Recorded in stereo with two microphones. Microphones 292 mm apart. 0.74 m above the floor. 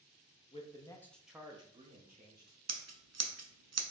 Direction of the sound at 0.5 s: 20° left (ahead or behind).